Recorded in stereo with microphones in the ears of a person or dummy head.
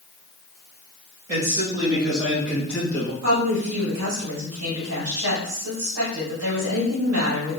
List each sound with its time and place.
1.3 s a man speaking: 30° right (ahead or behind), 1.9 m; by 3.1 s 25° left (ahead or behind), 0.8 m
3.2 s a woman speaking: 85° right, 1.9 m